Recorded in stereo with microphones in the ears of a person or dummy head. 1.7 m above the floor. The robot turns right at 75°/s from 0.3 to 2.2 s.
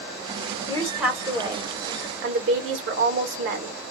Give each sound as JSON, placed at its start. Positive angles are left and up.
{"t": 0.7, "sound": "a woman speaking", "azimuth_deg": 165, "distance_m": 1.5}